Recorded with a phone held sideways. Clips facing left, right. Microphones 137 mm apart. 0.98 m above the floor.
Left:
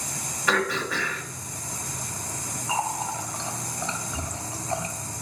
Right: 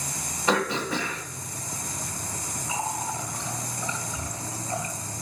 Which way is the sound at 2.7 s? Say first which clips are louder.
Left 3 dB; 80° left.